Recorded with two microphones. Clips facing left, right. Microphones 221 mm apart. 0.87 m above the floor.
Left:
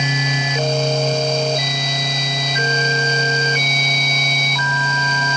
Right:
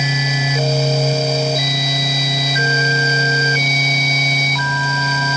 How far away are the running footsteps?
I don't hear running footsteps.